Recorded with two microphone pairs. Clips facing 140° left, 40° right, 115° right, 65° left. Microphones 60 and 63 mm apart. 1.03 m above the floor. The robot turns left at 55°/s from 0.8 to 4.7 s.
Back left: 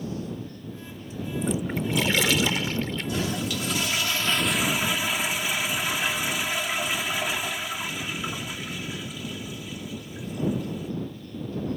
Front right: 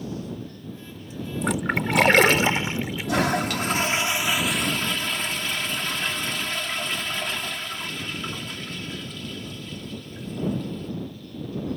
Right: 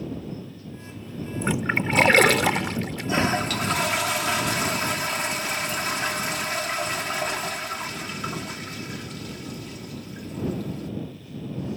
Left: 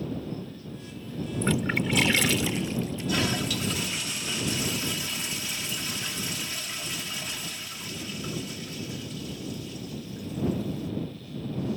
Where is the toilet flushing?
55° right; by 10.9 s 140° right.